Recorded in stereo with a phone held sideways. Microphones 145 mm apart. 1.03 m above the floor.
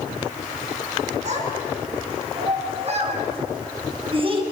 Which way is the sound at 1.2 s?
50° right (ahead or behind).